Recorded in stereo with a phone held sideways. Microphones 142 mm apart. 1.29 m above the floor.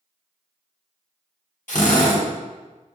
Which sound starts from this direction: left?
A drill, at 1.7 s.